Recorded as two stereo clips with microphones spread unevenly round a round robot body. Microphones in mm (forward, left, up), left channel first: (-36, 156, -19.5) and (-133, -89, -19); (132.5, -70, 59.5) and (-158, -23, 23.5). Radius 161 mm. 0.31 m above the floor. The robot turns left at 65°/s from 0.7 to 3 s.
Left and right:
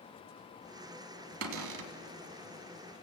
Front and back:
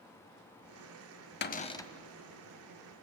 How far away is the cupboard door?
About 1.0 m.